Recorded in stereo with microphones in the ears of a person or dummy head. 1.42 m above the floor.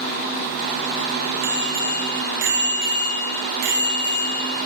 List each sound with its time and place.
1.4 s a bicycle bell: 60° right (ahead or behind), 4.5 m